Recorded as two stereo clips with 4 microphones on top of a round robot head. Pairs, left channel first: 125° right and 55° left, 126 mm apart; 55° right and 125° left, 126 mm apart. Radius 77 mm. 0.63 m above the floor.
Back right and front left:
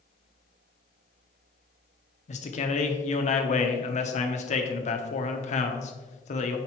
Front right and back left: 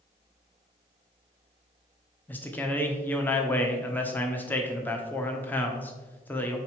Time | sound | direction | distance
2.3 | a man speaking | 130° right | 1.0 m